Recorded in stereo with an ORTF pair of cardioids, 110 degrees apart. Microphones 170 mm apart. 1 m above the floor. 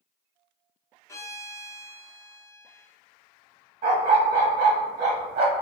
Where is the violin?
15° left, 0.8 m.